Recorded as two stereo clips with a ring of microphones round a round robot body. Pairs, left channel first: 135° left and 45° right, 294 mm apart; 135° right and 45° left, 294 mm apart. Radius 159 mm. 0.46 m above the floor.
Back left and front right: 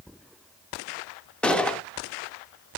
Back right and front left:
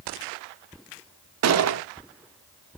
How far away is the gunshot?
About 0.7 m.